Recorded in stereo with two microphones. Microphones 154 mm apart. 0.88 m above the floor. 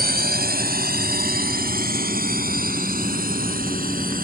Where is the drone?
80° right; by 4.2 s 65° right (ahead or behind).